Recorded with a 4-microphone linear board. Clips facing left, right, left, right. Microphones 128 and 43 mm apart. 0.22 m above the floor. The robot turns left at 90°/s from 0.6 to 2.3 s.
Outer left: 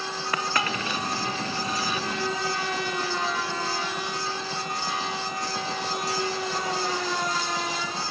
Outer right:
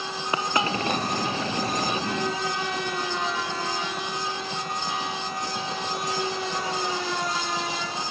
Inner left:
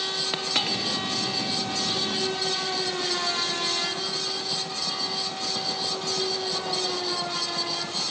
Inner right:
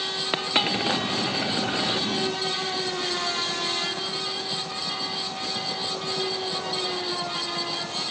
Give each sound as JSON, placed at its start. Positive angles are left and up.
{"t": 0.3, "sound": "a dropped coin", "side_deg": -20}